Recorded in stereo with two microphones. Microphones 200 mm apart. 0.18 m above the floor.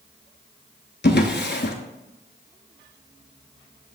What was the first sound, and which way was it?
A drawer, 55° left (ahead or behind).